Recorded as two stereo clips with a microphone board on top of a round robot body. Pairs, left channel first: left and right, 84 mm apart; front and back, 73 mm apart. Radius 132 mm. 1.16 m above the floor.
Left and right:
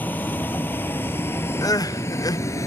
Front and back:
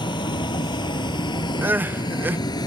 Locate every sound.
0.0 s a vehicle: 20° left; by 2.7 s 35° left
1.6 s crying: 120° left